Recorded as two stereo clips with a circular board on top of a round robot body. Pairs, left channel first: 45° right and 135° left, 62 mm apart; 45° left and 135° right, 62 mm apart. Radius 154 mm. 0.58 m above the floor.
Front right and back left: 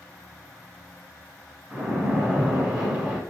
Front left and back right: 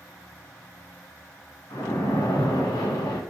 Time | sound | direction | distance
1.7 | a splash | 60° left | 0.8 m